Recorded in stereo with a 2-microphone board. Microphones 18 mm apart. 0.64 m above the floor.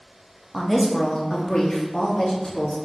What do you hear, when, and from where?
0.5 s a woman speaking: centre (ahead or behind), 0.6 m; by 2.8 s 60° left (ahead or behind), 1.3 m